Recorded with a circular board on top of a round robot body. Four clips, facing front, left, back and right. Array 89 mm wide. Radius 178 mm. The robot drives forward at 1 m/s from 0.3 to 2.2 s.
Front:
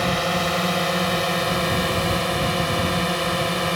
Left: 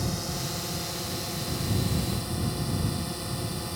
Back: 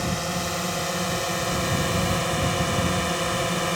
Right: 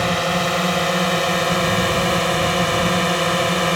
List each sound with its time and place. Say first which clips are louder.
0.0 s a drone: right 14 dB, front 6 dB; 65° right; by 3.8 s 80° right